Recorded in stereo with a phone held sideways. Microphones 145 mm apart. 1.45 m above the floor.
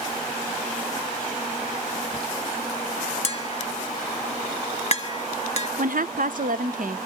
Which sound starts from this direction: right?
A woman speaking, at 5.8 s.